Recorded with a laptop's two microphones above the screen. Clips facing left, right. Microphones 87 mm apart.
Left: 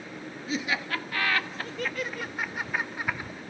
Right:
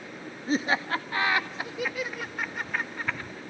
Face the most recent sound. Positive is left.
turn(degrees=15)  # may be behind; listen again after turning